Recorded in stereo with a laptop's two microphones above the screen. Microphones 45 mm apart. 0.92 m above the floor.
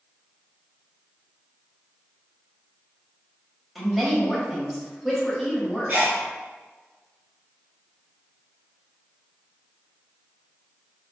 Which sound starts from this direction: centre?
A woman speaking, at 3.8 s.